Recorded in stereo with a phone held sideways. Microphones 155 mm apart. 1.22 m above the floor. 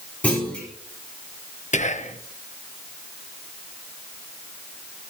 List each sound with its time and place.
0.2 s a clunk: 10° left (ahead or behind), 4 m
1.7 s whispering: 50° left (ahead or behind), 0.9 m